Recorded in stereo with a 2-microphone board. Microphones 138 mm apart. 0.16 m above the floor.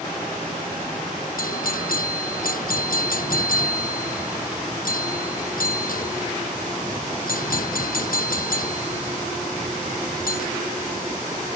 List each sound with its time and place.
1.4 s a doorbell: 75° left (ahead or behind)